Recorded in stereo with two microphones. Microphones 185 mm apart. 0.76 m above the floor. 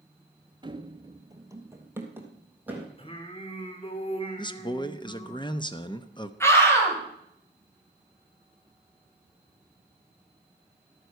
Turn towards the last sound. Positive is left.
turn(degrees=15)  # may be behind; listen again after turning